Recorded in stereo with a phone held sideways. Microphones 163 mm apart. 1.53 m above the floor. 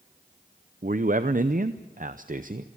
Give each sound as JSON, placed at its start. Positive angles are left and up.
{"t": 0.8, "sound": "a man speaking", "side_deg": -55, "distance_m": 0.7}